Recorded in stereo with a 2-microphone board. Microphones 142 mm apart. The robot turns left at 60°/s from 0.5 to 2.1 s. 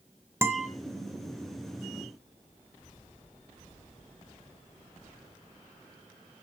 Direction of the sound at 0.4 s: 15° right (ahead or behind).